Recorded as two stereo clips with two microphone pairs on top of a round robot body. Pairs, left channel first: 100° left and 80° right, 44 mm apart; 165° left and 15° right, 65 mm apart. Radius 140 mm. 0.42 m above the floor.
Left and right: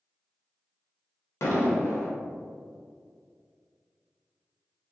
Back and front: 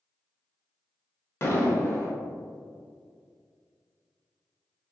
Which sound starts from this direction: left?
An explosion, at 1.4 s.